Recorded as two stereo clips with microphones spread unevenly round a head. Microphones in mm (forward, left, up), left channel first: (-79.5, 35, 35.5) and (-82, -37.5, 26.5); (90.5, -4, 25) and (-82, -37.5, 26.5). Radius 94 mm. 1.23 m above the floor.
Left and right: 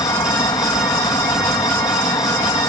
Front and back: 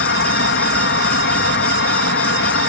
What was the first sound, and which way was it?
An insect, 30° left.